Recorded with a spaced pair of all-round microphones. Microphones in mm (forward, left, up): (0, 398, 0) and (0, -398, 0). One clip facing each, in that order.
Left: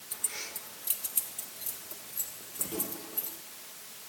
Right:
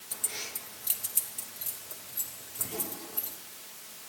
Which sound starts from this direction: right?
Keys jangling, at 0.1 s.